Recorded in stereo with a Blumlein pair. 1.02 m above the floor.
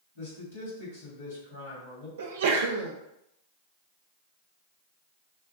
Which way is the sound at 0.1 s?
60° left.